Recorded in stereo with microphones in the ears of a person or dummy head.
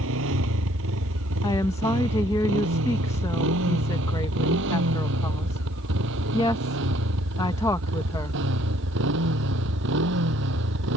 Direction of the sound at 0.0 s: 70° right (ahead or behind).